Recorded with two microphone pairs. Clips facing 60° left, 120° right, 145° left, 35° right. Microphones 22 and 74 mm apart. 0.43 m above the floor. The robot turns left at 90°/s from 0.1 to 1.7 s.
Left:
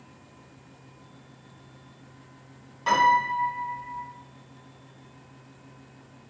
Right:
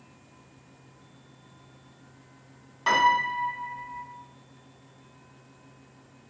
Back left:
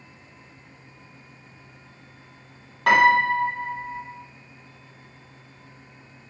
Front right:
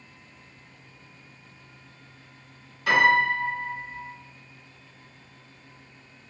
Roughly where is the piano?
Behind.